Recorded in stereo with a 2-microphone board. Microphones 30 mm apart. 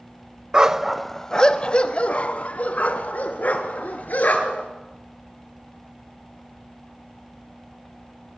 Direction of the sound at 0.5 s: 25° right (ahead or behind).